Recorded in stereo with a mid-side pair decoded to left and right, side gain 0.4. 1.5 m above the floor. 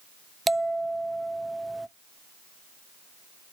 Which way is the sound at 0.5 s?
15° right.